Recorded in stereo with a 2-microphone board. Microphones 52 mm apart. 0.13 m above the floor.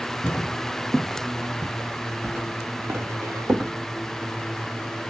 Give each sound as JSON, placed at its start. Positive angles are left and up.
{"t": 0.2, "sound": "footsteps", "side_deg": 25, "distance_m": 0.6}